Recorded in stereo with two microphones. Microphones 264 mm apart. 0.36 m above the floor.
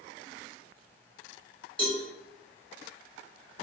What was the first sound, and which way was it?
A cowbell, 20° left (ahead or behind).